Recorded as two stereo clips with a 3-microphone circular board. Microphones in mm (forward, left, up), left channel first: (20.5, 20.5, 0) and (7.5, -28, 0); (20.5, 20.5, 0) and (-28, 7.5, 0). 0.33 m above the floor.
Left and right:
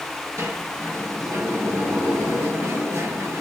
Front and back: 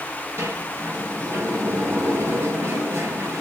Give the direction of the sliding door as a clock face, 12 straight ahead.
4 o'clock.